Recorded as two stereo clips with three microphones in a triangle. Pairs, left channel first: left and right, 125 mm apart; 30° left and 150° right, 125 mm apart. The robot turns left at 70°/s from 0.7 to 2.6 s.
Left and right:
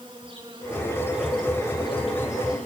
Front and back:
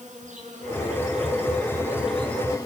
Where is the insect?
135° right, 8 m; by 2.7 s 90° left, 8 m.